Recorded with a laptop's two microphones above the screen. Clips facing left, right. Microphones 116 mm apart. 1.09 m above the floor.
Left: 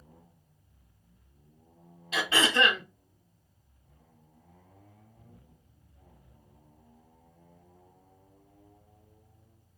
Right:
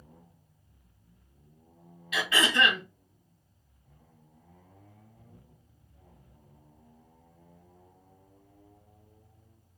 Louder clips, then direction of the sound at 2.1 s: Left 1 dB; 30° left (ahead or behind).